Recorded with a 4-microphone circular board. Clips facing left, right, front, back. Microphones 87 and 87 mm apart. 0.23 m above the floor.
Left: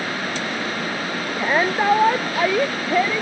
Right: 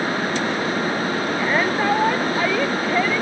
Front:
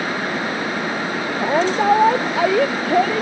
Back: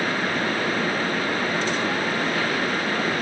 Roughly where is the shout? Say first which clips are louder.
Left 3 dB, front 7 dB; ahead.